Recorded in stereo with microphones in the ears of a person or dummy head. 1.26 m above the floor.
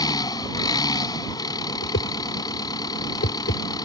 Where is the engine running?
20° left (ahead or behind).